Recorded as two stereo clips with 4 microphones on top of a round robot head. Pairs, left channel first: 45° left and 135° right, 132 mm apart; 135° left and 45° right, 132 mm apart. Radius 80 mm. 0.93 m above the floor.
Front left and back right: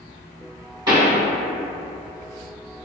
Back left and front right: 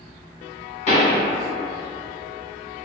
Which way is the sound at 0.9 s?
165° left.